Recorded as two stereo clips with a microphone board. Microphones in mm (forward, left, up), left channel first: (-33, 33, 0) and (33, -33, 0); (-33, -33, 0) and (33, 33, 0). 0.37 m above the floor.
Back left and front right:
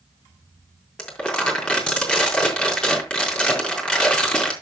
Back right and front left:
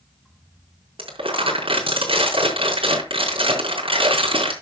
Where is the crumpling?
55° left, 4.5 m.